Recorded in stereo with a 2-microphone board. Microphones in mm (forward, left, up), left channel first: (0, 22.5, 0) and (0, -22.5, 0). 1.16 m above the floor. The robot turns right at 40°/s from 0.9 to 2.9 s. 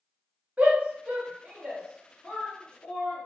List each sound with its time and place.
0.6 s a shout: 35° right (ahead or behind), 0.9 m; by 3.3 s 30° left (ahead or behind), 0.9 m